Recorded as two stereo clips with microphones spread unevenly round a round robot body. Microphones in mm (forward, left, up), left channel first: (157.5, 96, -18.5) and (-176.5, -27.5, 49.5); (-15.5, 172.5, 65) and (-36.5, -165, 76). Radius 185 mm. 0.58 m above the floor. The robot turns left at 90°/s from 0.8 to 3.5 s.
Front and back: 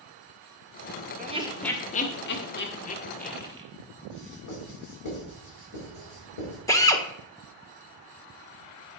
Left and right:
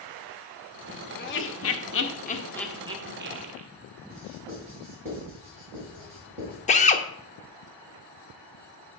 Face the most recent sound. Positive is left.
turn(degrees=60)